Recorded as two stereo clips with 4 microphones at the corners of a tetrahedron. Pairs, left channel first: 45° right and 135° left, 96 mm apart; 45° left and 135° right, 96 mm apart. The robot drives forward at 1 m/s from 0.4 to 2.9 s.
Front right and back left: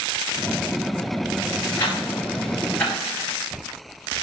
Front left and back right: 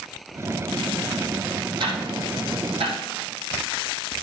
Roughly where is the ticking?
Right.